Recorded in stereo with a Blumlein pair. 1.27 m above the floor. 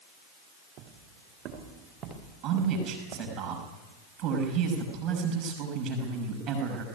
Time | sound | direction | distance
0.8 | footsteps | 35° right | 7 m
2.4 | a man speaking | 30° right | 6.5 m